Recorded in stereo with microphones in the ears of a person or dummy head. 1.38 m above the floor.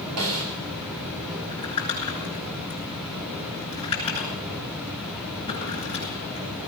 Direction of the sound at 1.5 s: 30° left (ahead or behind).